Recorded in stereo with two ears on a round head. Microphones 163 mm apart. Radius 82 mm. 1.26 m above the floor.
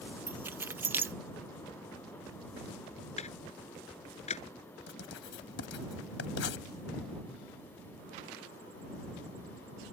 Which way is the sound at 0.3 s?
10° right (ahead or behind).